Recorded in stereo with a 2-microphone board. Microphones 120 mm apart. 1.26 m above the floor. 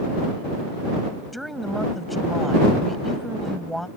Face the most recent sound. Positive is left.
turn(degrees=0)  # may be behind; listen again after turning